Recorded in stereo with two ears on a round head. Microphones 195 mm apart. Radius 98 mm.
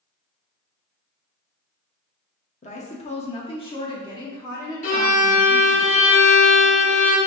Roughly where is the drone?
No drone in this recording.